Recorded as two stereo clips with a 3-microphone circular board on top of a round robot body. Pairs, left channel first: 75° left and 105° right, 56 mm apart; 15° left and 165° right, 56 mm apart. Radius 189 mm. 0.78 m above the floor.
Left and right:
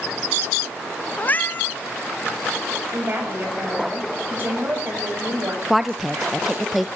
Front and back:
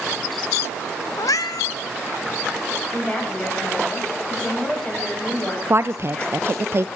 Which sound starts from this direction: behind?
A woman speaking, at 5.7 s.